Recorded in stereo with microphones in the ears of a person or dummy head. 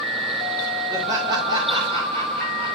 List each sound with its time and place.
0.9 s laughter: 15° right (ahead or behind), 3 m; by 2.8 s 50° right (ahead or behind), 2.5 m